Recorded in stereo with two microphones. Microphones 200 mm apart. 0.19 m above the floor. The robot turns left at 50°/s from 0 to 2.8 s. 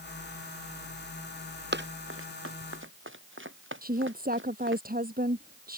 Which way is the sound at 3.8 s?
45° right (ahead or behind).